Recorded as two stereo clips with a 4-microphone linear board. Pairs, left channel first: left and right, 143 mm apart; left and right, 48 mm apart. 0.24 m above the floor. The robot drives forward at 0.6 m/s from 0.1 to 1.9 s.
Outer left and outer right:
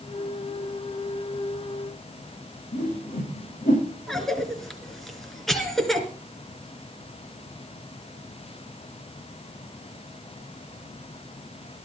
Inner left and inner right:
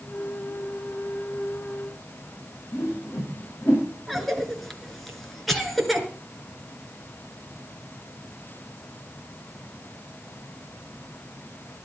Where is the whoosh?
85° left, 7.5 m.